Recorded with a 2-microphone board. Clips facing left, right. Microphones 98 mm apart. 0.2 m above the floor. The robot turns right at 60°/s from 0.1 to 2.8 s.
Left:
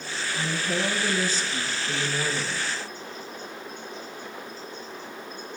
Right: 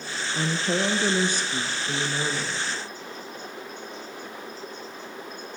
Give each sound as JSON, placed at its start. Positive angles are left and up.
{"t": 0.3, "sound": "a woman speaking", "azimuth_deg": -120, "distance_m": 3.0}